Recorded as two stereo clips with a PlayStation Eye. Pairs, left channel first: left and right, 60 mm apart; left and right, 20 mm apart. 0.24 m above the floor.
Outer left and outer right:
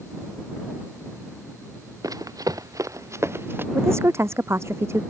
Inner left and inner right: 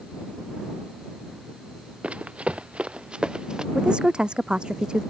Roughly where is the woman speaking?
Right.